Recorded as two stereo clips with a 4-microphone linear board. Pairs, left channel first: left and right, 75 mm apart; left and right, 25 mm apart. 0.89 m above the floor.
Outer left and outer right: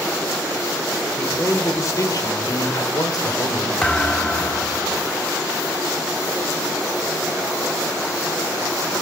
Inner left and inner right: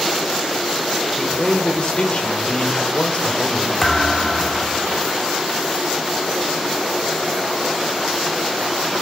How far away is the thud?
About 1.1 m.